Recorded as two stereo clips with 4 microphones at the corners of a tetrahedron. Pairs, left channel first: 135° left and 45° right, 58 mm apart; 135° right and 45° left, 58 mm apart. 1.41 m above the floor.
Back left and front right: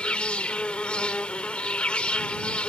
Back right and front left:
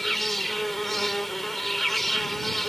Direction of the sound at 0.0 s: 140° left.